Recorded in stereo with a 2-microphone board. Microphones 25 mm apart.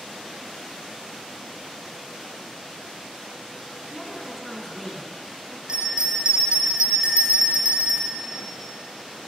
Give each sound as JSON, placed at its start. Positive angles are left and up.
{"t": 3.9, "sound": "a woman speaking", "side_deg": 15, "distance_m": 2.0}
{"t": 5.7, "sound": "a bell", "side_deg": -45, "distance_m": 1.6}